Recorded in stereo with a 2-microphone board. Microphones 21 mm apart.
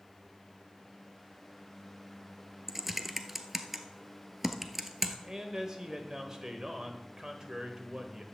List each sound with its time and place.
2.7 s typing on a keyboard: 10° right (ahead or behind), 1.1 m
5.2 s a man speaking: 30° right (ahead or behind), 1.5 m